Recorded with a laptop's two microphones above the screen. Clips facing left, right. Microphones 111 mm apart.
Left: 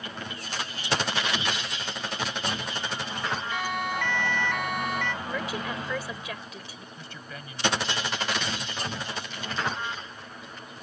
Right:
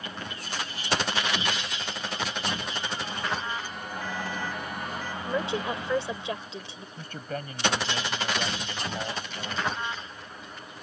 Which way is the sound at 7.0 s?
45° right (ahead or behind).